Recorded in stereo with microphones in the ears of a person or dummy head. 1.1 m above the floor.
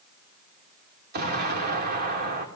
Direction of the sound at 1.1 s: 50° right (ahead or behind).